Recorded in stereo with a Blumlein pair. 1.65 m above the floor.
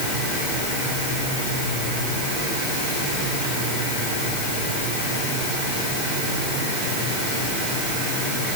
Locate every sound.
Only background noise.